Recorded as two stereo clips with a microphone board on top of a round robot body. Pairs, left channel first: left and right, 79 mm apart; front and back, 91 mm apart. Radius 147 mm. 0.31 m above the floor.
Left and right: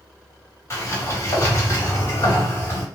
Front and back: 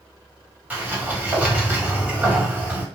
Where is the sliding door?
115° left, 1.8 m.